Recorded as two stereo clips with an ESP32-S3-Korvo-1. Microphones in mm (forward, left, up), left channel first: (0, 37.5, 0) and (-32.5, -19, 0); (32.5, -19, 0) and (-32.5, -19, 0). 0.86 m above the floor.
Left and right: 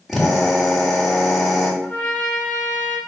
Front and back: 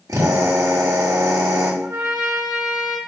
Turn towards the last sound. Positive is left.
turn(degrees=135)